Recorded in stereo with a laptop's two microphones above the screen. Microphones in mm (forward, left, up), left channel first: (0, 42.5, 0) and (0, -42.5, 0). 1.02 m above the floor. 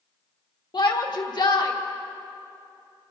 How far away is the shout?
About 1.4 m.